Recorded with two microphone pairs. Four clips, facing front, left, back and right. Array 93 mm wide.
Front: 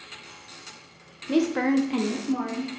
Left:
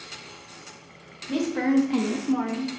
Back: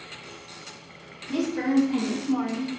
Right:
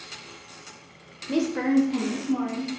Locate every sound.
1.3 s a woman speaking: 20° right, 0.7 m; by 2.7 s 95° left, 1.1 m